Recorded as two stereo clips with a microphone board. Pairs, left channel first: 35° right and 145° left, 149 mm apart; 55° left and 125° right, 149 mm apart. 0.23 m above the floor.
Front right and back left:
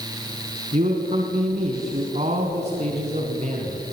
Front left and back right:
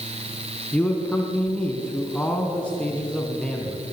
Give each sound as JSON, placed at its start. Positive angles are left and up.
{"t": 0.7, "sound": "a man speaking", "azimuth_deg": 135, "distance_m": 2.5}